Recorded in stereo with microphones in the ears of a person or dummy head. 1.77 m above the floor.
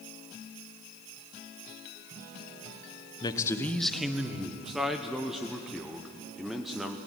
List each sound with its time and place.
3.2 s a man speaking: 30° left (ahead or behind), 1.0 m; by 4.5 s 5° right (ahead or behind), 1.7 m
4.6 s a man speaking: centre (ahead or behind), 0.8 m